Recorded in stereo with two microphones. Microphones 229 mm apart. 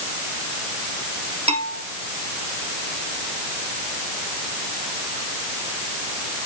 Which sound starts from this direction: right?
A bell, at 1.5 s.